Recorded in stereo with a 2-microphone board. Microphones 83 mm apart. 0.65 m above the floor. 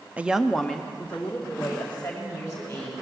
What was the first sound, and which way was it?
A woman speaking, 15° right (ahead or behind).